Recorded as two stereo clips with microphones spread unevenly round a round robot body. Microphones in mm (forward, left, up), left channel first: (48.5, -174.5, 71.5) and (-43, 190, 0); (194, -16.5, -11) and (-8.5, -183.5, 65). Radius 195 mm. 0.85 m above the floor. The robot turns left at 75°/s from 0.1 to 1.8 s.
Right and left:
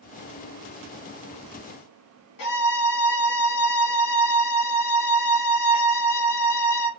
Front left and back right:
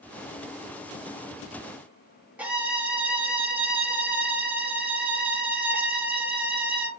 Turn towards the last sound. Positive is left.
turn(degrees=-40)